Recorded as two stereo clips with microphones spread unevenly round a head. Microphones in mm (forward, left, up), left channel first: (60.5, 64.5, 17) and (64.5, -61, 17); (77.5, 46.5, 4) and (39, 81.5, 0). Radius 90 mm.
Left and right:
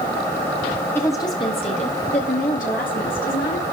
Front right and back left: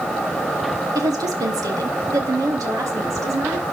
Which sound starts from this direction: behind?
A woman speaking, at 0.9 s.